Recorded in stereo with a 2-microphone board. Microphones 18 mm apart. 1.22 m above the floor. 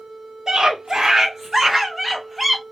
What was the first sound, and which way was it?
A scream, 50° right (ahead or behind).